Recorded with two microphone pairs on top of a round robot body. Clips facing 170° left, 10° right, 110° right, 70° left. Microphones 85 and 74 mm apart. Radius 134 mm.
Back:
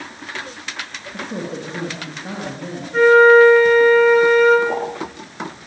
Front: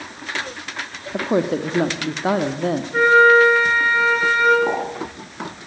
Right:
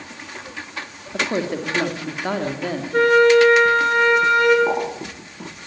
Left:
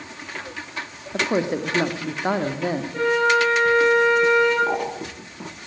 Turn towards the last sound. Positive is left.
turn(degrees=-40)